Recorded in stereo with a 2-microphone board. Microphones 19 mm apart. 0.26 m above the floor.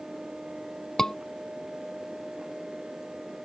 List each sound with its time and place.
1.0 s a scream: 40° left (ahead or behind)